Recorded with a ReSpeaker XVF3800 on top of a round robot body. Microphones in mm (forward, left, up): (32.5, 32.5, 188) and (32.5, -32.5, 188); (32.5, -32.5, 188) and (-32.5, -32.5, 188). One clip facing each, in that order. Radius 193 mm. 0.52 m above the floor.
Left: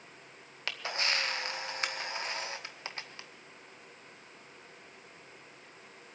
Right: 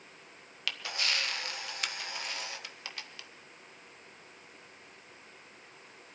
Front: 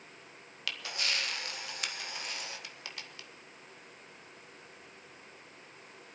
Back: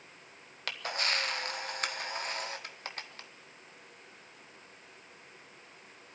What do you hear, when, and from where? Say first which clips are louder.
0.7 s a camera shutter: left 1 dB, back 3 dB; 140° left, 1.4 m